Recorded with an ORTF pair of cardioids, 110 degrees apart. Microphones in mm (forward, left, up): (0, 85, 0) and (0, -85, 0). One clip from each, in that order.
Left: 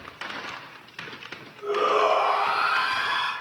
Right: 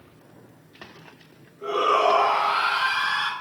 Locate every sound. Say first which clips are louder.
1.6 s a shout: right 2 dB; 45° right, 2.0 m; by 3.3 s 80° right, 1.2 m